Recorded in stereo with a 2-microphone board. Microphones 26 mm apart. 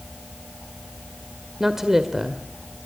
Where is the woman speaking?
15° right (ahead or behind), 1.8 m.